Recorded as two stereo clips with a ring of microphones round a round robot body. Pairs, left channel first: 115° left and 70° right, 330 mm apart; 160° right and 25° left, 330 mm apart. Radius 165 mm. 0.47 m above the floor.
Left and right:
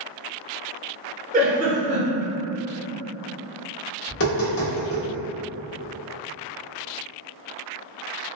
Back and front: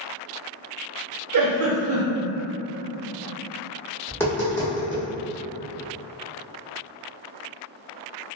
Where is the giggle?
Straight ahead, 0.7 m.